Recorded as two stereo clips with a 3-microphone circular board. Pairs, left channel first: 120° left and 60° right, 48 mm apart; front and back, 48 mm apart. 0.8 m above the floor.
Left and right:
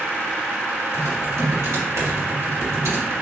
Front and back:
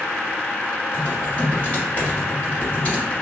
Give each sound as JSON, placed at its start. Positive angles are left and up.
{"t": 0.9, "sound": "typing on a keyboard", "azimuth_deg": -60, "distance_m": 1.8}